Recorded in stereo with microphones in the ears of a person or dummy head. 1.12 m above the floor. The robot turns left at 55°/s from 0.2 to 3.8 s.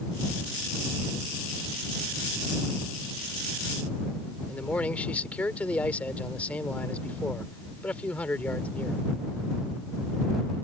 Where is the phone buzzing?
I don't hear a phone buzzing.